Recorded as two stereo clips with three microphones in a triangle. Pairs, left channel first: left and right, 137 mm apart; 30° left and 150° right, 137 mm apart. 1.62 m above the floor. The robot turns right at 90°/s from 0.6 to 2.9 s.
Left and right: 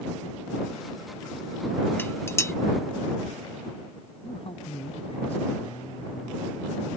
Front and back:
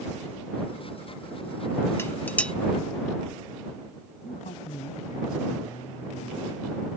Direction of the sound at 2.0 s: 55° left.